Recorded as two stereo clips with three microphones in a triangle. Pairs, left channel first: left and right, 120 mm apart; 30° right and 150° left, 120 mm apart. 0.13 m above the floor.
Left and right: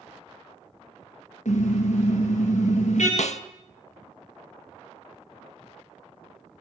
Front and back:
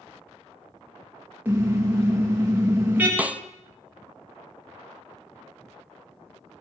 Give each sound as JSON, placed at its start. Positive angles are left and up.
{"t": 1.4, "sound": "a car horn", "azimuth_deg": 75, "distance_m": 7.5}
{"t": 3.2, "sound": "a snare drum", "azimuth_deg": 75, "distance_m": 0.6}